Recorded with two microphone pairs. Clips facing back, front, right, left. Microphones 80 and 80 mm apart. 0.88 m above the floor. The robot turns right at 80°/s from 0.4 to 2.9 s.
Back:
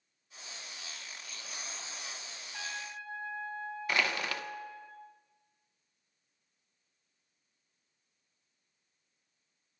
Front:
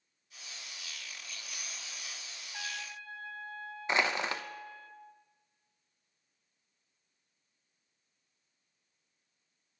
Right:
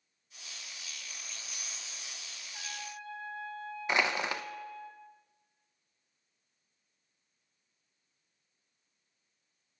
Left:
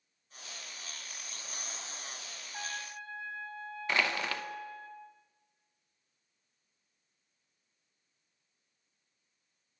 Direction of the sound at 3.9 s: 35° right.